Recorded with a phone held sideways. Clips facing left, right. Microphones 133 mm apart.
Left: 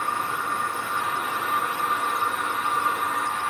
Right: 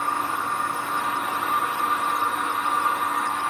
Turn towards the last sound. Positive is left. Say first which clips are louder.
# right 2 dB
turn(degrees=-40)  # may be behind; listen again after turning